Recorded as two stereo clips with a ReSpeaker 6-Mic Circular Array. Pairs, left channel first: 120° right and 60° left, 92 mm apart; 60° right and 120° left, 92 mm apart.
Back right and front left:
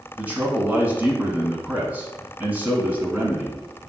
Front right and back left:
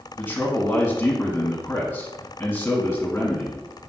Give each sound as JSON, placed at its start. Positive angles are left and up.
{"t": 0.2, "sound": "a man speaking", "azimuth_deg": 0, "distance_m": 1.6}